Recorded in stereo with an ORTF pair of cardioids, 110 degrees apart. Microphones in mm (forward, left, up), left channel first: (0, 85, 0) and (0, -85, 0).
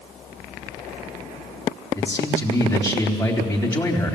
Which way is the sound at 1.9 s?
15° left.